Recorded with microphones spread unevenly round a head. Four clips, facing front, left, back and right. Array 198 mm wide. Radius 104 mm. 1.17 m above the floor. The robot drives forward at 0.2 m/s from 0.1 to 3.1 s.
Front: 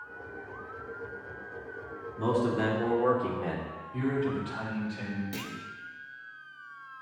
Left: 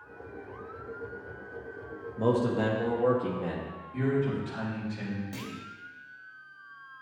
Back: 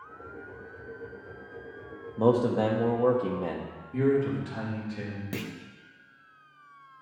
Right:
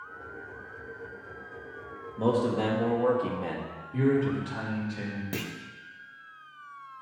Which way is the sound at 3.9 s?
155° right.